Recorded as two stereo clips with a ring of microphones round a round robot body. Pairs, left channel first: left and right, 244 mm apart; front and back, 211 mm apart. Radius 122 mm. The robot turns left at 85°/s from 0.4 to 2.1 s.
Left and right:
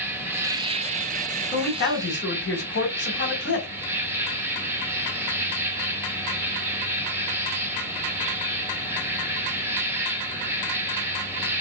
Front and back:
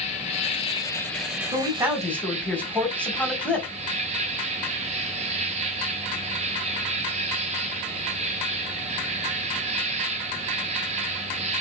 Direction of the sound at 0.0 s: 20° right.